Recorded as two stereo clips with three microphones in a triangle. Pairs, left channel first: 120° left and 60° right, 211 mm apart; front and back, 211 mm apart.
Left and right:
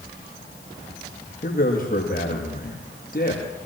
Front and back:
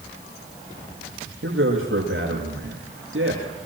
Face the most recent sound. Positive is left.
turn(degrees=170)